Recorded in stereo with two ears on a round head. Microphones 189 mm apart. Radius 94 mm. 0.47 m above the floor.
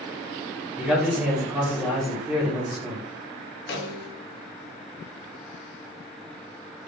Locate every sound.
0.8 s a man speaking: 5° right (ahead or behind), 0.9 m
3.7 s a snare drum: 50° left (ahead or behind), 0.5 m